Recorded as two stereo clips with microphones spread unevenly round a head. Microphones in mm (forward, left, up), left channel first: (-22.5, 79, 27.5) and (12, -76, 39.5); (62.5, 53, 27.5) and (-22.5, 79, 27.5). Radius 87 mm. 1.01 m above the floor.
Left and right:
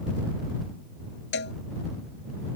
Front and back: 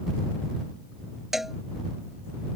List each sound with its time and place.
1.3 s a cowbell: 75° left